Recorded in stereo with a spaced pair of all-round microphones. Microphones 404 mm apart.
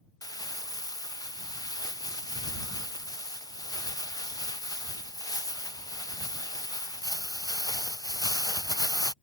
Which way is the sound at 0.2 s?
10° left (ahead or behind).